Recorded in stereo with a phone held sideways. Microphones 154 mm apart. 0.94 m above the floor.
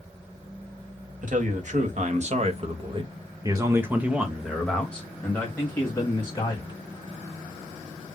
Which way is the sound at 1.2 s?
60° right (ahead or behind).